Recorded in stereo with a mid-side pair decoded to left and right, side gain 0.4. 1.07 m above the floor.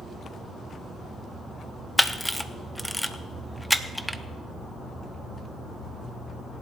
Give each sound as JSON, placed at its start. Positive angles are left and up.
{"t": 2.0, "sound": "a camera shutter", "azimuth_deg": 5, "distance_m": 0.9}